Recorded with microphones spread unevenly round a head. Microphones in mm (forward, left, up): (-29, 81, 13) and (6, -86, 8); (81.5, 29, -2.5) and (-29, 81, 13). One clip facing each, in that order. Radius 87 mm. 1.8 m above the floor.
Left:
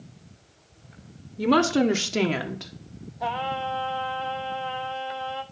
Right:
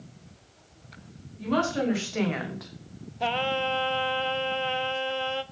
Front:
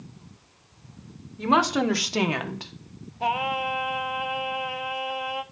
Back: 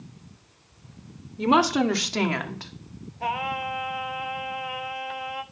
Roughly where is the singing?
Right.